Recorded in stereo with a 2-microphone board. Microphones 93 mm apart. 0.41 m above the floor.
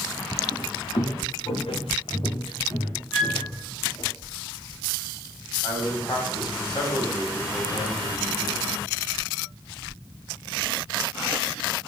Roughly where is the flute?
Left.